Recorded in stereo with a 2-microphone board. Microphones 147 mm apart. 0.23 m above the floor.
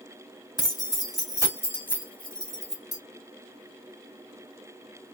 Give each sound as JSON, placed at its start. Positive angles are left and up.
{"t": 0.6, "sound": "keys jangling", "side_deg": 25, "distance_m": 0.9}